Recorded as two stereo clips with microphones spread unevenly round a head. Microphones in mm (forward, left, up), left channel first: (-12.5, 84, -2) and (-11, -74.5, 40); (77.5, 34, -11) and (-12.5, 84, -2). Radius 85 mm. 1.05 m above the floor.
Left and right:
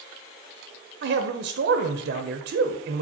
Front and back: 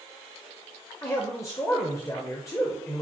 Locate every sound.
1.0 s a man speaking: 90° right, 0.5 m